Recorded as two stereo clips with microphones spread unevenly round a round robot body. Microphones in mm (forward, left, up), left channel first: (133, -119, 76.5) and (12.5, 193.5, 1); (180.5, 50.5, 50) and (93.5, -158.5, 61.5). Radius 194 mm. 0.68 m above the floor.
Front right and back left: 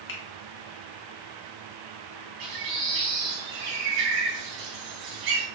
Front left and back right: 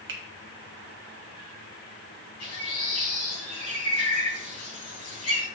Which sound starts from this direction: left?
A bird, at 2.4 s.